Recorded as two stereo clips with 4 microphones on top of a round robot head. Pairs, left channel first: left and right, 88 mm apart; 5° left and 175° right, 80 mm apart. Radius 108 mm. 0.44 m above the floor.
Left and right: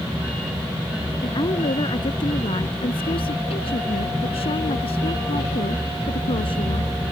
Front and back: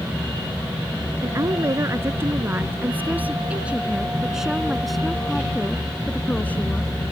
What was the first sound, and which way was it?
A woman speaking, 130° left.